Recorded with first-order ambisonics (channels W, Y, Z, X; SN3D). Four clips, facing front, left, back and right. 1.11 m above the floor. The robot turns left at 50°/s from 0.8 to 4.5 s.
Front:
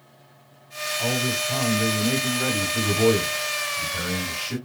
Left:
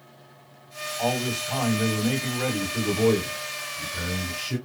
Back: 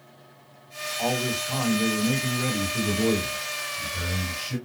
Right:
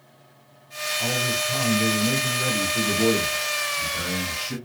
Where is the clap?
No clap in this recording.